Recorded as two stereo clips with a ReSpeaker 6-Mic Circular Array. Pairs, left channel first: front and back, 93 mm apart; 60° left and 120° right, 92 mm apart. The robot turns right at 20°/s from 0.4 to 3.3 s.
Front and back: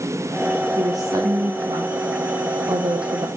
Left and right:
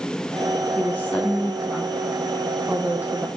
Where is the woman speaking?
130° left, 0.7 m; by 3.3 s straight behind, 0.7 m.